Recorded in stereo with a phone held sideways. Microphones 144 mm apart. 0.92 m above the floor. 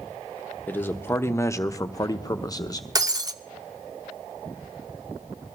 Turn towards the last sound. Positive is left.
turn(degrees=-25)  # may be behind; listen again after turning